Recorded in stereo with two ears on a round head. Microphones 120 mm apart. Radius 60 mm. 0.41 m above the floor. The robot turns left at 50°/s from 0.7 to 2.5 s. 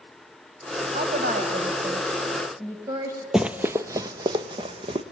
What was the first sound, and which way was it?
A woman speaking, 75° right.